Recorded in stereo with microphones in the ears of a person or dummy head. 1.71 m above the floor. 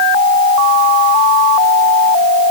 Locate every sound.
Only background noise.